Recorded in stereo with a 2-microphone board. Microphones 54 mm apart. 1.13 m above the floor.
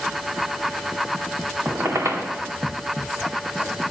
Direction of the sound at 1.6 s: 65° right (ahead or behind).